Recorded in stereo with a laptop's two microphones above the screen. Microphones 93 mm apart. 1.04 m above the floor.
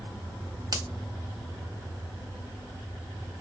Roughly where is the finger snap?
Right.